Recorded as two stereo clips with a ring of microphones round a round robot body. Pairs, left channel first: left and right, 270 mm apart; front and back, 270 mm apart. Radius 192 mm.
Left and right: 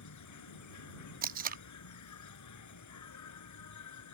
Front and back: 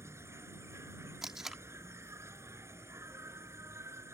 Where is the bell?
I don't hear a bell.